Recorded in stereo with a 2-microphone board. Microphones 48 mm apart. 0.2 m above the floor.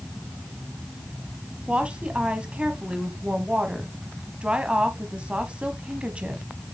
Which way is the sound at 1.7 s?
25° right (ahead or behind).